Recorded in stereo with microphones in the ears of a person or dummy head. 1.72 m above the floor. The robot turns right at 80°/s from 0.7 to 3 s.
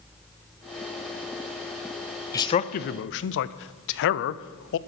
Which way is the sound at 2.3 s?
20° left (ahead or behind).